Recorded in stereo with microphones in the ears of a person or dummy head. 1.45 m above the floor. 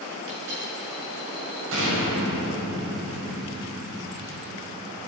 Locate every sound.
0.3 s a dropped coin: 65° right (ahead or behind), 5.5 m
1.7 s an explosion: 75° right (ahead or behind), 7 m